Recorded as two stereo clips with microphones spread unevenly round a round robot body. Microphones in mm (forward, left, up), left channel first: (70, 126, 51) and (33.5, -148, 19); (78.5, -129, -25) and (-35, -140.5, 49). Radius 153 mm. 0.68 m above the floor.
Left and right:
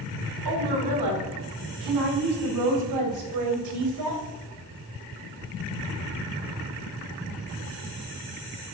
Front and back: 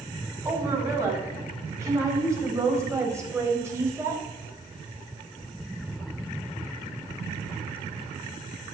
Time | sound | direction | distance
0.5 | a woman speaking | 105° right | 5 m